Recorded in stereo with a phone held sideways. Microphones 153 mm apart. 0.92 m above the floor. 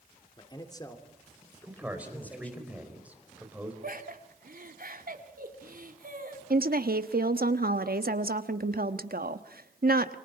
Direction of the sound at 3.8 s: 70° right (ahead or behind).